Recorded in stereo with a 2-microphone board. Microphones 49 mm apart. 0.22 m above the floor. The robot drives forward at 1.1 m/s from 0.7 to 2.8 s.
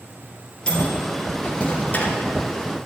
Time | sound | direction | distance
0.7 | a microwave | 20° left (ahead or behind) | 3.5 m